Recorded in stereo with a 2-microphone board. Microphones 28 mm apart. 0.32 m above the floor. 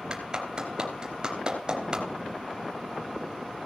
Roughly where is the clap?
Right.